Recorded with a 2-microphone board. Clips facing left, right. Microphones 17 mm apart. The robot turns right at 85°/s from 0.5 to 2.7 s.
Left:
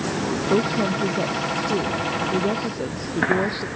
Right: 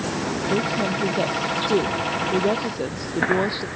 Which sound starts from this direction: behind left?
A woman speaking, at 0.5 s.